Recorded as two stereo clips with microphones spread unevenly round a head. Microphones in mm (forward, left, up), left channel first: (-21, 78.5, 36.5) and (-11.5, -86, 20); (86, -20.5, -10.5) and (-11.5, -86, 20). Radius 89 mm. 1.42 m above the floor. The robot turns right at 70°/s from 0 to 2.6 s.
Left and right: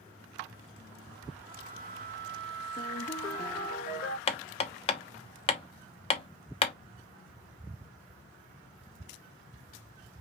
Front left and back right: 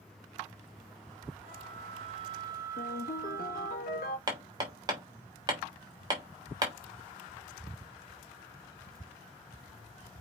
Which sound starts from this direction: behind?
A flute, at 1.4 s.